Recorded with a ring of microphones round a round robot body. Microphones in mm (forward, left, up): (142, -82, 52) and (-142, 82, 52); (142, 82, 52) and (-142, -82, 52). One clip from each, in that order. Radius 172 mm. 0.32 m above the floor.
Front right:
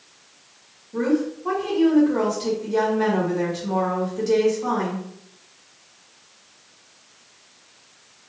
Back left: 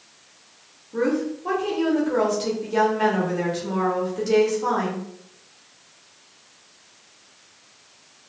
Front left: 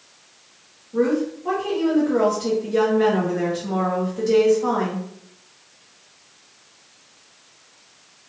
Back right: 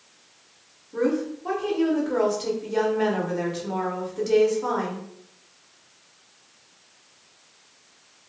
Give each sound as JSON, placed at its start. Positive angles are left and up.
{"t": 0.9, "sound": "a woman speaking", "azimuth_deg": -145, "distance_m": 1.0}